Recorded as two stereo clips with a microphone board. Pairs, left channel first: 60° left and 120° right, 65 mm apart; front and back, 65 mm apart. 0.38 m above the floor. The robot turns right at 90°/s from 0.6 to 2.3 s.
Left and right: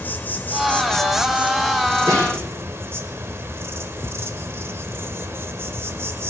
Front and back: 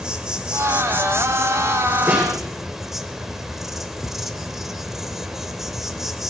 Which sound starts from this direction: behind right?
A snare drum, at 2.1 s.